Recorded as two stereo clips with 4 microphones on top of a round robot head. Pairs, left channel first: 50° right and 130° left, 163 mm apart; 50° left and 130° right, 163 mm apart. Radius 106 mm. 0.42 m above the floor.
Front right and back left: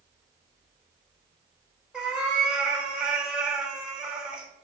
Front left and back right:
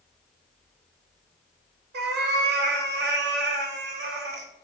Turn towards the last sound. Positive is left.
turn(degrees=-145)